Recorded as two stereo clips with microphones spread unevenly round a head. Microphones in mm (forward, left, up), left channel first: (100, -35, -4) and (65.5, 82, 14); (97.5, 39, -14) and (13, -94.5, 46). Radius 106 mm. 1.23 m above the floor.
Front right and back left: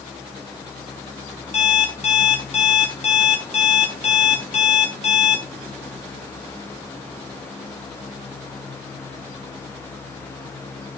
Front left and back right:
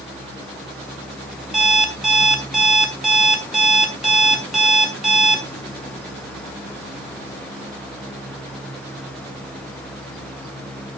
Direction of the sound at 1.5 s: 40° right.